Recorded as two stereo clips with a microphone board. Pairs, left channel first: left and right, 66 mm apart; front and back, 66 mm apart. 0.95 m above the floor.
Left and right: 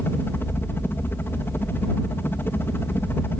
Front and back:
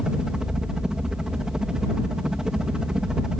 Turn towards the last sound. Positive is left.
turn(degrees=110)